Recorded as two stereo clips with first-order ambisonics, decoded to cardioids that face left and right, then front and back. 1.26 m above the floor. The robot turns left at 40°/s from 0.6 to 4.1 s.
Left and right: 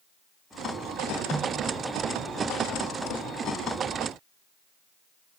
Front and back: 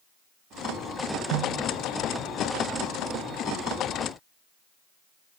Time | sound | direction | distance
1.3 | a snare drum | 165° right | 4 m